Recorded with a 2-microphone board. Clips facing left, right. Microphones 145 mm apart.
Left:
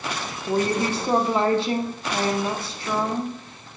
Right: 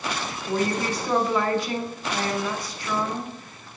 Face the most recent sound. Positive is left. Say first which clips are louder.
# left 3 dB
turn(degrees=25)  # may be behind; listen again after turning